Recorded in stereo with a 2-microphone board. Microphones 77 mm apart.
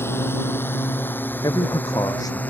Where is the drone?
30° left (ahead or behind); by 2.5 s 20° left (ahead or behind).